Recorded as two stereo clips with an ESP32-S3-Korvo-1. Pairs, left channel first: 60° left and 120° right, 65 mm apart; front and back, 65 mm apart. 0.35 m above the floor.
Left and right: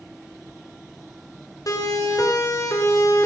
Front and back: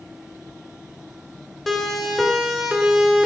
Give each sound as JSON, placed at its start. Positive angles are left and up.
{"t": 1.7, "sound": "a siren", "azimuth_deg": 85, "distance_m": 4.5}